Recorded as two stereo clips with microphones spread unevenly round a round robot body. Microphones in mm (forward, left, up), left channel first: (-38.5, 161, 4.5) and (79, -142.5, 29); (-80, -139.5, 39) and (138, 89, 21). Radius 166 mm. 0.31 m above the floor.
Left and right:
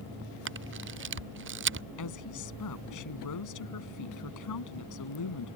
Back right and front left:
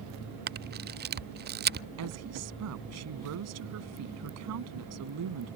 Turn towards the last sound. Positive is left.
turn(degrees=85)